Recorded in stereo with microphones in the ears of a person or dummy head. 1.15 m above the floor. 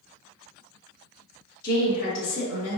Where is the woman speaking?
55° left (ahead or behind), 1.6 m; by 2.8 s 75° left (ahead or behind), 2.5 m.